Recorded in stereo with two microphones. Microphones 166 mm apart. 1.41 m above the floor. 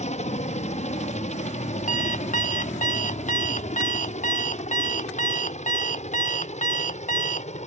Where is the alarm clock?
50° left (ahead or behind).